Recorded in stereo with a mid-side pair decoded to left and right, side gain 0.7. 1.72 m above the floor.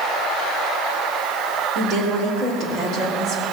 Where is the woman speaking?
55° right, 3.5 m.